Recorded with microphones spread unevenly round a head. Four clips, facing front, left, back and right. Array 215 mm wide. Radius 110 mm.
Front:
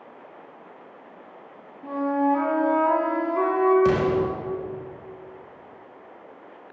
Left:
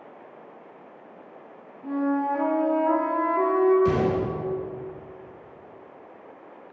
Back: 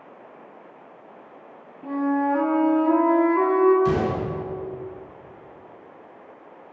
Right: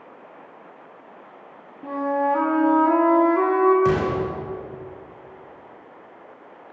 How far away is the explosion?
About 4 m.